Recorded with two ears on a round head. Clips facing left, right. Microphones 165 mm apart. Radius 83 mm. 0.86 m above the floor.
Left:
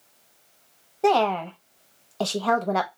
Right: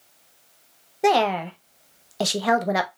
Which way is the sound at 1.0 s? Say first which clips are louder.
Right 1 dB; 15° right (ahead or behind).